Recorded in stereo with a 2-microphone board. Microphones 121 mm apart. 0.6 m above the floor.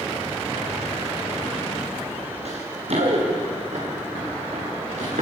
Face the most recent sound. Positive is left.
turn(degrees=-75)  # may be behind; listen again after turning